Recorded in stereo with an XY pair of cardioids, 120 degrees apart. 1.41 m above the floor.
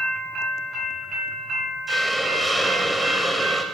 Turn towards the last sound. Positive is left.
turn(degrees=-5)